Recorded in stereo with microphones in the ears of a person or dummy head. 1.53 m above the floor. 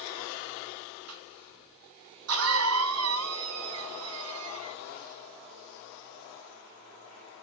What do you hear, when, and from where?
1.1 s a cough: 80° right, 1.3 m